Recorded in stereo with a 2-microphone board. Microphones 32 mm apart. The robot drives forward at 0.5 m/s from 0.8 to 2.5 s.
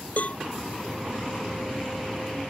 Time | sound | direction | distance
0.2 | a cowbell | 50° left (ahead or behind) | ?